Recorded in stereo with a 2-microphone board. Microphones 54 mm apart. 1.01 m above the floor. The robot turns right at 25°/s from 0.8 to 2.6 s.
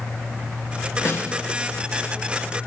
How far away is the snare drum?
About 0.8 m.